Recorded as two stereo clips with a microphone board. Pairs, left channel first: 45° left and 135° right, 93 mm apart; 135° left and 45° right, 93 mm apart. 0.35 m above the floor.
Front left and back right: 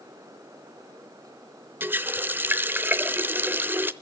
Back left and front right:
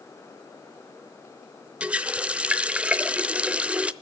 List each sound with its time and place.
1.8 s a running tap: 105° right, 0.6 m